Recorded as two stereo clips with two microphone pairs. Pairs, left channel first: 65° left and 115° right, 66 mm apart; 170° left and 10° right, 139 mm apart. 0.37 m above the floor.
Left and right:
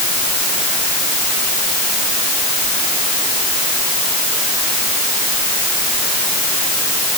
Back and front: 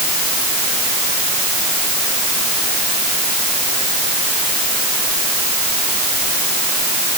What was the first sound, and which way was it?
Only background noise.